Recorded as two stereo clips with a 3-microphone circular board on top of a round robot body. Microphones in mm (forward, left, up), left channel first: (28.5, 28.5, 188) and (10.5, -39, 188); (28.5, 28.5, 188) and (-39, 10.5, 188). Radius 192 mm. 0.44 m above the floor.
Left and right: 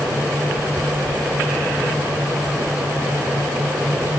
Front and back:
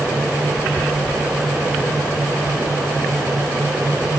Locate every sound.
Only background noise.